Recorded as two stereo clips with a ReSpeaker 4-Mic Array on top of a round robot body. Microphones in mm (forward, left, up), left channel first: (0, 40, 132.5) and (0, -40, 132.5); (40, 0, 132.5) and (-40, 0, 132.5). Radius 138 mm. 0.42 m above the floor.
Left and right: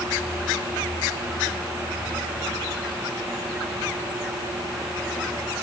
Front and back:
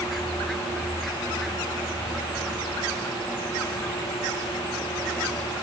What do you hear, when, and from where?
Only background noise.